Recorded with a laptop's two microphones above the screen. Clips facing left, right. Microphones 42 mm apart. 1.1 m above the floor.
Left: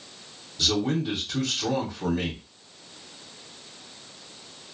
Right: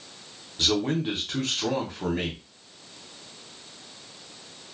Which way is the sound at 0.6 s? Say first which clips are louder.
Even; 45° right (ahead or behind).